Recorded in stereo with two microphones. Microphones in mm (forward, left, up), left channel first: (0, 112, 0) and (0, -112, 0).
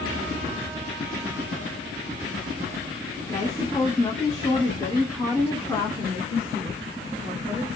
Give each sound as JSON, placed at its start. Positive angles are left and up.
{"t": 3.3, "sound": "a woman speaking", "side_deg": 25, "distance_m": 1.1}